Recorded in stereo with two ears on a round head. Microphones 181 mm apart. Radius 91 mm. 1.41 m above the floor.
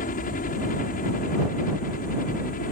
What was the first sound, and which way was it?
A helicopter, 40° left (ahead or behind).